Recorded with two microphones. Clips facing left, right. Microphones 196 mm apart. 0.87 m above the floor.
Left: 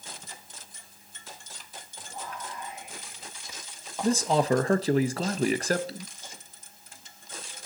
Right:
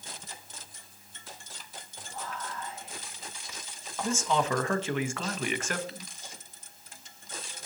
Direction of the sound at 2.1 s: 15° left (ahead or behind).